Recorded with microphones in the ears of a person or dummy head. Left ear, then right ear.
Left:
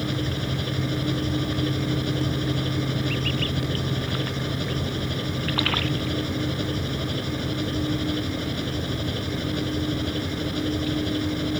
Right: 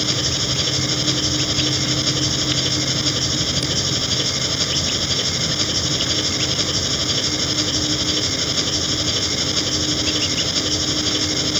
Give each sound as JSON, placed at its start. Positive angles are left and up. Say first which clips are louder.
{"t": 0.0, "sound": "an engine running", "louder": "right 9 dB", "side_deg": -50}